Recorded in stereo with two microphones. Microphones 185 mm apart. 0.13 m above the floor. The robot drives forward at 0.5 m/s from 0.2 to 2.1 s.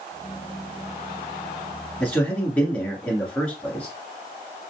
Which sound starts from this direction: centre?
A man speaking, at 2.0 s.